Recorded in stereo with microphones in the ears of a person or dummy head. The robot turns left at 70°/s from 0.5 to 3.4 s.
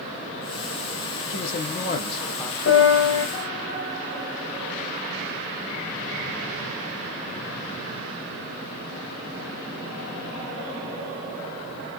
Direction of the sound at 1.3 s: 95° left.